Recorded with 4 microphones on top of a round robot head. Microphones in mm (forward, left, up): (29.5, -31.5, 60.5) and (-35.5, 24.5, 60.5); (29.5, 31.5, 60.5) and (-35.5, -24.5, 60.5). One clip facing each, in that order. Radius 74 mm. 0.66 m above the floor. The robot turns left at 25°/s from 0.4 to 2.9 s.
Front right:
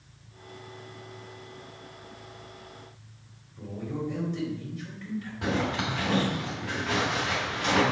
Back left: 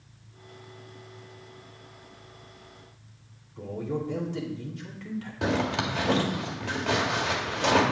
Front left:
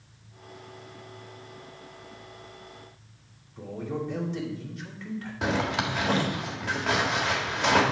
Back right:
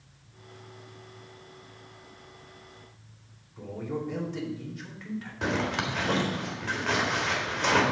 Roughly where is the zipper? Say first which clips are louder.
Back left 2 dB, front left 2 dB; behind left.